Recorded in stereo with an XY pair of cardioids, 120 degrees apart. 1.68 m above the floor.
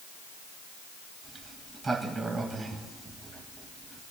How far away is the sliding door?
About 1.9 m.